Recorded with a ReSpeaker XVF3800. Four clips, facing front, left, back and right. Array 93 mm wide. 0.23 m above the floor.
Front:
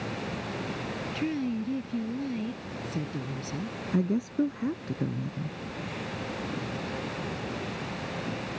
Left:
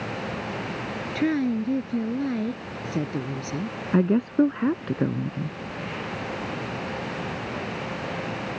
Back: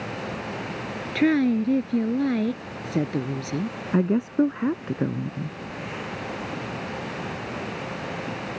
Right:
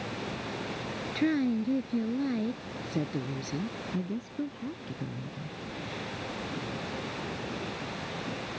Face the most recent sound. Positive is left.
turn(degrees=125)